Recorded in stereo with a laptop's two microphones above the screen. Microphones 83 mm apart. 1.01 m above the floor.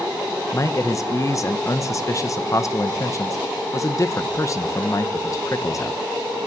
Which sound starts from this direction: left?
A man speaking, at 0.5 s.